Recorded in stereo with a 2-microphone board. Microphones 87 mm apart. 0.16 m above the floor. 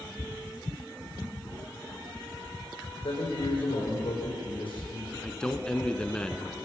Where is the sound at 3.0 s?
75° left (ahead or behind), 9.5 m.